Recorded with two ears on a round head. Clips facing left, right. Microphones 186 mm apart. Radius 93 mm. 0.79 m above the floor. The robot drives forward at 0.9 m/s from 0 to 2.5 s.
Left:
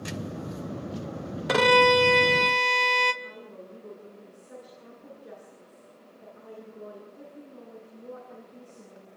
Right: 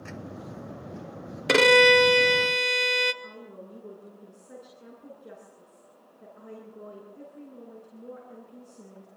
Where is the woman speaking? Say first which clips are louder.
Even; 30° right (ahead or behind), 10 m.